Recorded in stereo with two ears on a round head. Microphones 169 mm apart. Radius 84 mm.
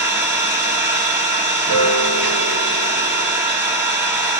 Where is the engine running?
10° right (ahead or behind), 1.4 m.